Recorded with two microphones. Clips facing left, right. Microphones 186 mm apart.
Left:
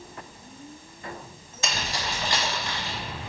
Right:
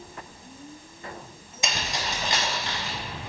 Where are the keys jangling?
20° right (ahead or behind), 0.9 m; by 3.0 s 25° right (ahead or behind), 1.9 m.